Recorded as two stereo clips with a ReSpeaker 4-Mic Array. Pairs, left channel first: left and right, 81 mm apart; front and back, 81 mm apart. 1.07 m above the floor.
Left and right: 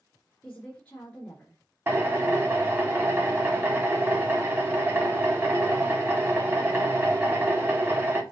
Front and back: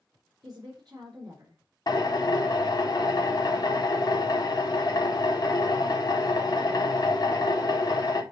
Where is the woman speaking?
160° left, 3.5 m.